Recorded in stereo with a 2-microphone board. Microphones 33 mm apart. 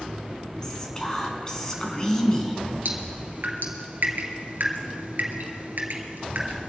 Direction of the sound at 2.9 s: 70° right (ahead or behind).